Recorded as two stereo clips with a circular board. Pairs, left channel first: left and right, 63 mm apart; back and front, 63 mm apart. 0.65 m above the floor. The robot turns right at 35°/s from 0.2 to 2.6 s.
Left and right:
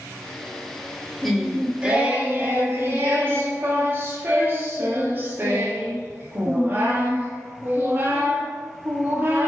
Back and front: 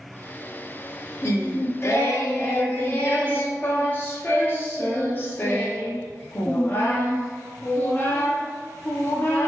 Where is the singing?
Straight behind, 0.8 m; by 9.5 s 135° right, 0.8 m.